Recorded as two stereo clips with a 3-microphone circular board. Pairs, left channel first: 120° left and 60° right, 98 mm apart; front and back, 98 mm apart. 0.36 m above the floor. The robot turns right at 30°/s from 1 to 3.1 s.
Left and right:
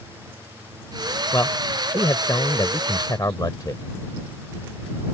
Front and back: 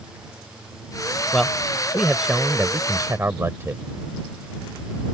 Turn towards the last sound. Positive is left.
turn(degrees=130)